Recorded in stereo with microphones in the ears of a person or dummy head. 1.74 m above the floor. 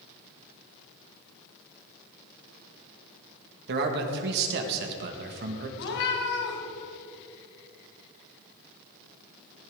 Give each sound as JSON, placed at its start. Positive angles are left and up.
{"t": 3.7, "sound": "a man speaking", "side_deg": -60, "distance_m": 2.0}
{"t": 5.8, "sound": "a cat meowing", "side_deg": 60, "distance_m": 3.0}